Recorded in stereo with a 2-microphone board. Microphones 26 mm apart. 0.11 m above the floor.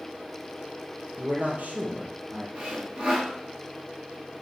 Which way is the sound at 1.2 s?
60° right (ahead or behind).